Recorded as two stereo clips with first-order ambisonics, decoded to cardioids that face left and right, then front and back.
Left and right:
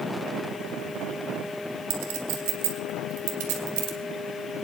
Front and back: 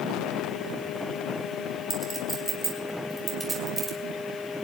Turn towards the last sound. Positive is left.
turn(degrees=-100)